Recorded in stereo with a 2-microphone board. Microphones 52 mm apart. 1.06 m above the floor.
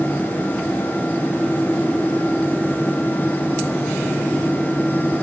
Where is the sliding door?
No sliding door in this recording.